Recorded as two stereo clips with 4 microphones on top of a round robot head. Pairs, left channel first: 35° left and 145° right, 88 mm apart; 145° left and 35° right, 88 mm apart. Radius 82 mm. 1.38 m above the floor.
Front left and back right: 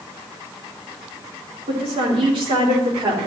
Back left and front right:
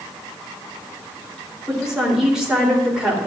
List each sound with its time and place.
1.7 s a woman speaking: 120° right, 3.5 m